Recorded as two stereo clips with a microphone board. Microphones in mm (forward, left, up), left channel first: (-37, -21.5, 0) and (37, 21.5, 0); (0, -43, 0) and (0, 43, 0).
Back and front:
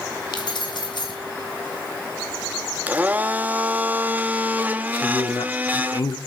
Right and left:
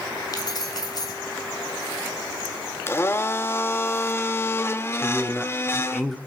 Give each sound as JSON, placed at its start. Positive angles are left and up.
{"t": 0.3, "sound": "keys jangling", "azimuth_deg": -130, "distance_m": 2.5}
{"t": 2.9, "sound": "a blender", "azimuth_deg": -35, "distance_m": 0.8}
{"t": 5.0, "sound": "a man speaking", "azimuth_deg": -175, "distance_m": 1.5}